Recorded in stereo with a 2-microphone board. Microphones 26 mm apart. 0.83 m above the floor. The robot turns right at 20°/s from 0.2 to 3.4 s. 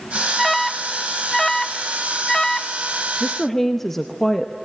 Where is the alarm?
5° left (ahead or behind), 0.6 m; by 2.7 s 25° left (ahead or behind), 0.6 m.